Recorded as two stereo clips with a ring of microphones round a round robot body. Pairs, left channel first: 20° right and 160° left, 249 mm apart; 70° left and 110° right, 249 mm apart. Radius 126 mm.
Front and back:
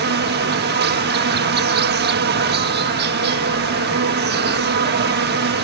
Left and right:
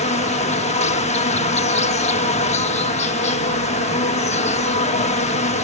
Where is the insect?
125° left.